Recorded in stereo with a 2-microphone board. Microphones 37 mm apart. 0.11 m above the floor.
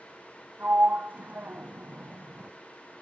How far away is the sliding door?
About 1.4 m.